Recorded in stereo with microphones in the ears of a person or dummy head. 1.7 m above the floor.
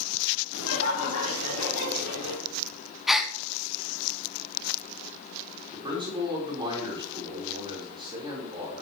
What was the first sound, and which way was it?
Laughter, 80° left.